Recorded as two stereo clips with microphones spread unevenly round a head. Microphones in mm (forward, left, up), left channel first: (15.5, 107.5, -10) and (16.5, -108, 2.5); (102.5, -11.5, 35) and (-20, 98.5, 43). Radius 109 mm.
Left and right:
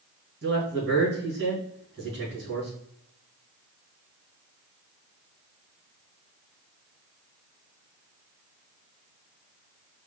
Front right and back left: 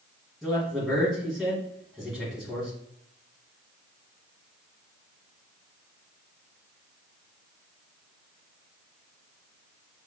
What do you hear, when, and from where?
0.4 s a man speaking: 130° right, 2.5 m